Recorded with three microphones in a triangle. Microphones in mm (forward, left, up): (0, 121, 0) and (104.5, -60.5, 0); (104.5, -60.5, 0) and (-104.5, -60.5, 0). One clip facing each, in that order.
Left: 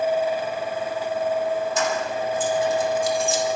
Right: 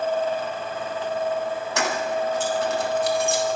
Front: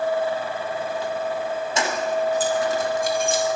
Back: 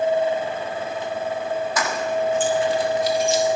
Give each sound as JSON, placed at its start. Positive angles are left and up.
{"t": 1.8, "sound": "keys jangling", "azimuth_deg": -65, "distance_m": 1.7}